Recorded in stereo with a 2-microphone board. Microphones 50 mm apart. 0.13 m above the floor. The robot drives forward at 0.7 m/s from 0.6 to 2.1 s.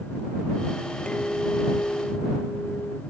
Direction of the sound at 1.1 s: 25° left (ahead or behind).